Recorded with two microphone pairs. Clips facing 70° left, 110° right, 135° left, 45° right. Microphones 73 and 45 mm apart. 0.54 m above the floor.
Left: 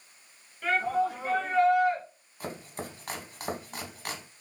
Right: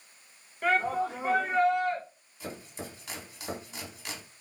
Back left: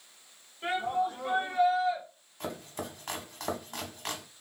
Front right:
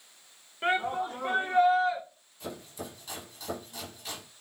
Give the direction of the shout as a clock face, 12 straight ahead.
2 o'clock.